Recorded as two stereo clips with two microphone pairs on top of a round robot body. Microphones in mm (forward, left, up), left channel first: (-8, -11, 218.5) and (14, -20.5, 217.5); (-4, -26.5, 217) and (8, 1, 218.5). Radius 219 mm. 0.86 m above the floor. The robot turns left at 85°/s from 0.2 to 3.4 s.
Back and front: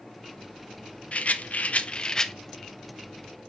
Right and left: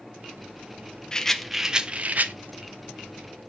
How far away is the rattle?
About 1.1 m.